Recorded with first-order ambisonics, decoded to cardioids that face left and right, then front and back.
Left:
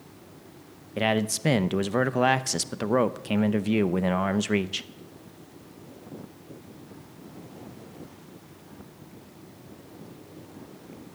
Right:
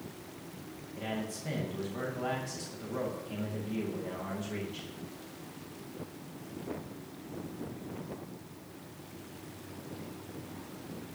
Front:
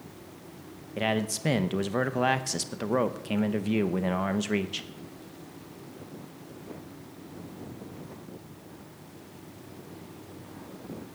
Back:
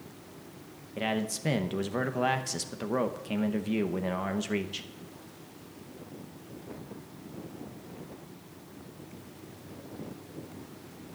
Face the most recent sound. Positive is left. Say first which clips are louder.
# left 13 dB, front 3 dB
turn(degrees=80)